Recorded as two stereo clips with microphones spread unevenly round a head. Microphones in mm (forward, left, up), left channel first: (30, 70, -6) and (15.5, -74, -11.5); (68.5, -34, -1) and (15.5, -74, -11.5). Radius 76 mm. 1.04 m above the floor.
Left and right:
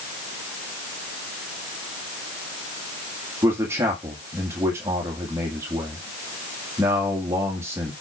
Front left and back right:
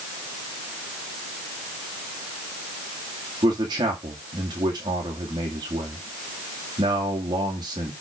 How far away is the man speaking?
About 1.8 m.